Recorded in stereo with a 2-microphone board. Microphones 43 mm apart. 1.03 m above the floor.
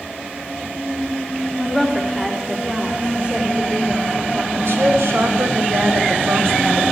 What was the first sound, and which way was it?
A woman speaking, 5° left (ahead or behind).